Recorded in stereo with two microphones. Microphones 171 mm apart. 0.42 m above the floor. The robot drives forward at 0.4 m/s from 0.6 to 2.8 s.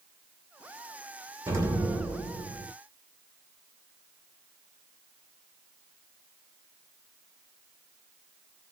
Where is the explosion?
20° right (ahead or behind), 1.0 m; by 2.7 s 15° right (ahead or behind), 1.4 m.